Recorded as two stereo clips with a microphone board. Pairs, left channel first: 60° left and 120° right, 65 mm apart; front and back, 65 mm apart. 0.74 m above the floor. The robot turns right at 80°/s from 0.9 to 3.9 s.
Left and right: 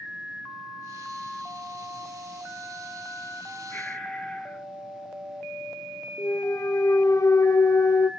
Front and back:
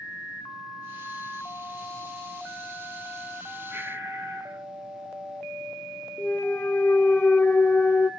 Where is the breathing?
120° left, 1.9 m; by 4.7 s 135° left, 1.9 m.